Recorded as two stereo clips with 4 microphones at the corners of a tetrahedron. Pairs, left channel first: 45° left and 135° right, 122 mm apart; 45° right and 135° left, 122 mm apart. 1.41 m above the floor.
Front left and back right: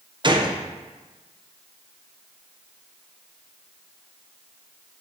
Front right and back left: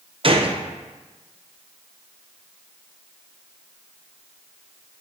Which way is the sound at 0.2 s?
175° left.